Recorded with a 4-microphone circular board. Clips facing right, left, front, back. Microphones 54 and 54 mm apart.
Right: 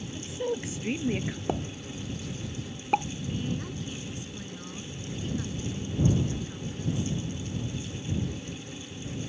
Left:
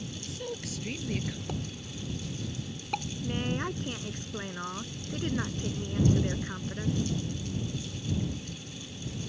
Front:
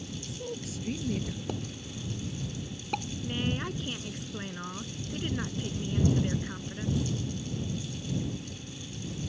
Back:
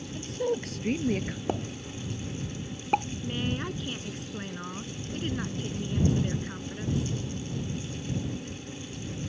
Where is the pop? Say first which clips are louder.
Right 6 dB, back 5 dB; 135° right.